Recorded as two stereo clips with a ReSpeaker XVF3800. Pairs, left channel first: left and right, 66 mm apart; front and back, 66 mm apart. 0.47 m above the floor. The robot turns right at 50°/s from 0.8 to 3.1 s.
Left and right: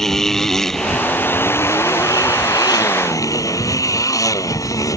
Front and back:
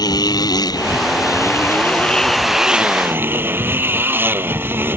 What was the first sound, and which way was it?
A motorcycle, 5° left.